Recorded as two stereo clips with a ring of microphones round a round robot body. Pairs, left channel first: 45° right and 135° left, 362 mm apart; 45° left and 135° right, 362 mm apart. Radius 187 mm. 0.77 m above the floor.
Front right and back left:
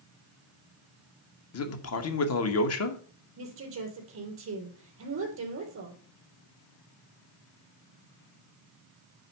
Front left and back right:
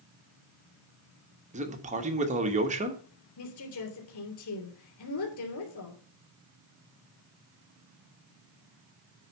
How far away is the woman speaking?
About 3.5 m.